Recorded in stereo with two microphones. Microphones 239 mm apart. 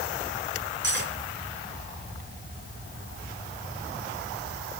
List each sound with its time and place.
0.8 s cutlery clinking: 50° right (ahead or behind), 3.5 m